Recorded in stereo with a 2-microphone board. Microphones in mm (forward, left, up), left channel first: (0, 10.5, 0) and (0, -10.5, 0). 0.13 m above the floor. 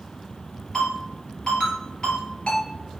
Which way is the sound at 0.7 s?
50° left (ahead or behind).